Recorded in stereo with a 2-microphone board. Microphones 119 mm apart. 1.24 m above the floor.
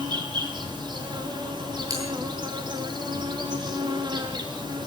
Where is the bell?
30° right (ahead or behind), 9.5 m.